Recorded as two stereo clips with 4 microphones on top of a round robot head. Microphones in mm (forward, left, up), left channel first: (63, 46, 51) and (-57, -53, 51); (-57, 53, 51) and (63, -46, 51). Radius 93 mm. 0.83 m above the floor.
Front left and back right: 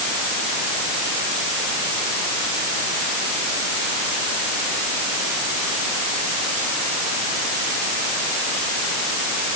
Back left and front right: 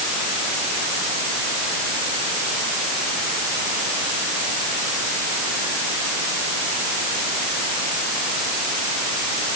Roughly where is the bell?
No bell in this recording.